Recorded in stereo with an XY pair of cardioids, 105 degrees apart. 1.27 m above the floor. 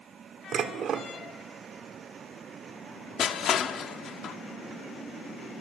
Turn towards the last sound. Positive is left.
turn(degrees=60)